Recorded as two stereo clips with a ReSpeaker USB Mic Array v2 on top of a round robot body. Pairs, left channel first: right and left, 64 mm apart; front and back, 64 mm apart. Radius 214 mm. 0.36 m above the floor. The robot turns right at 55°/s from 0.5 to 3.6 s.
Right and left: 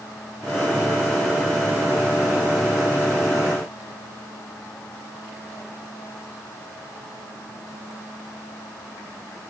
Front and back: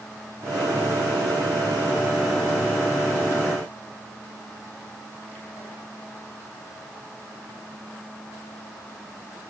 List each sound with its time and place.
Only background noise.